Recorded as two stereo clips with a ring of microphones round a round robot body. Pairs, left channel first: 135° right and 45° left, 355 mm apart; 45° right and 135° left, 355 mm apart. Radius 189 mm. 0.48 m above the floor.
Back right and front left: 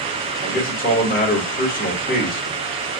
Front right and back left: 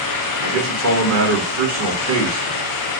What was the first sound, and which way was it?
A man speaking, 165° left.